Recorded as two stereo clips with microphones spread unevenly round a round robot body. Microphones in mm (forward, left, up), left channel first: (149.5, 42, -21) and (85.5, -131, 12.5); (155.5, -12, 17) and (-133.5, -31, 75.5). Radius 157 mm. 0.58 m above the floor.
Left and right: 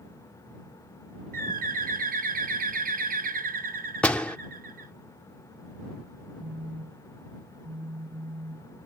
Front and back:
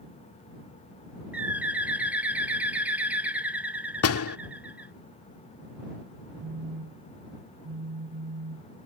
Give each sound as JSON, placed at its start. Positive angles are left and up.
{"t": 1.3, "sound": "a bird", "azimuth_deg": -80}
{"t": 4.0, "sound": "a door slam", "azimuth_deg": -10}
{"t": 6.4, "sound": "a phone buzzing", "azimuth_deg": -155}